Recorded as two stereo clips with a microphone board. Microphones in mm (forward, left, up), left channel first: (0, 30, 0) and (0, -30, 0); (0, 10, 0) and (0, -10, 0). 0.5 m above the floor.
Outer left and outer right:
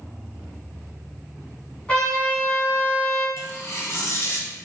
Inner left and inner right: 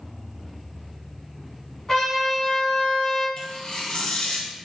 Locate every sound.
1.9 s a trumpet: 20° left (ahead or behind), 1.3 m
3.4 s tearing paper: 45° left (ahead or behind), 1.0 m